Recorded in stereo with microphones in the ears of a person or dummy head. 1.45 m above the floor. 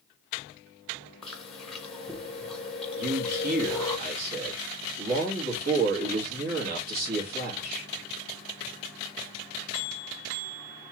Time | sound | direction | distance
1.2 | chewing | 5° left (ahead or behind) | 1.1 m
3.0 | a man speaking | 50° right (ahead or behind) | 1.9 m